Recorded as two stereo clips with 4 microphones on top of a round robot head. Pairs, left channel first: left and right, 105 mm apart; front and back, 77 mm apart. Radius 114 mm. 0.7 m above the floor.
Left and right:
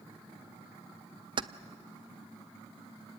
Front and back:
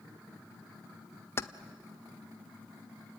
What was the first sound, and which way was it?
Keys jangling, 55° right.